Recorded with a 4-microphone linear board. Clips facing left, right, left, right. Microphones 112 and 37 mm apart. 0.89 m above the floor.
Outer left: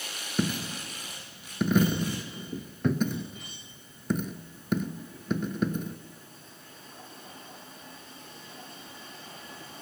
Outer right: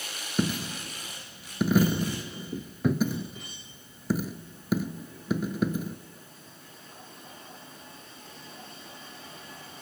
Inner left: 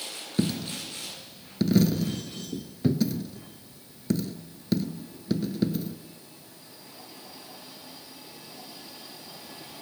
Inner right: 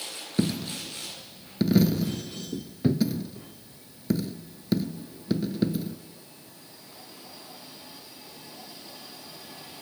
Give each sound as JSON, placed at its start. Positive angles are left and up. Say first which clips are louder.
{"t": 0.4, "sound": "a dropped coin", "louder": "outer right 1 dB, inner right 1 dB", "side_deg": -5, "distance_m": 0.9}